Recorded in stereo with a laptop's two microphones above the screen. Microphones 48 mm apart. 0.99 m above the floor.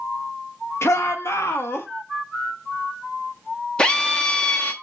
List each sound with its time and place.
0.8 s a shout: 70° left (ahead or behind), 0.9 m; by 1.9 s 60° left (ahead or behind), 1.7 m
3.8 s a drill: 20° left (ahead or behind), 0.7 m